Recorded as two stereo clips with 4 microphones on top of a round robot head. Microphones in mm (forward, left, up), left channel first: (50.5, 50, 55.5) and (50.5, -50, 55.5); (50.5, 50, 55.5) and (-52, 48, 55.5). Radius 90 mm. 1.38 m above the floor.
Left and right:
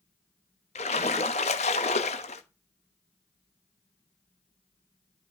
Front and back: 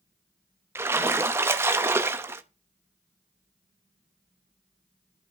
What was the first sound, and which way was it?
A splash, 120° left.